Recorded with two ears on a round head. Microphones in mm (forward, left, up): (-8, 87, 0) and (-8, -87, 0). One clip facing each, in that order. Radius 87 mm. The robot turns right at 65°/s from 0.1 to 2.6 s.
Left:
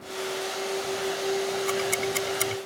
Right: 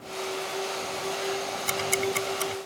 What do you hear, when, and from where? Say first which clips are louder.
1.7 s ticking: left 1 dB; 25° right (ahead or behind); by 2.6 s 35° left (ahead or behind)